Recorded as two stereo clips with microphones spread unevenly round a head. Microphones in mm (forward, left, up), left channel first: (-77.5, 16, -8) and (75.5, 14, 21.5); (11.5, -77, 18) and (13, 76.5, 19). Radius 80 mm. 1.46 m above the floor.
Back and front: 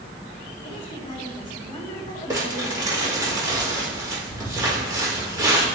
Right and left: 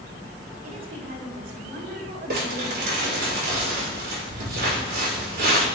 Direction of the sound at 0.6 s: 120° left.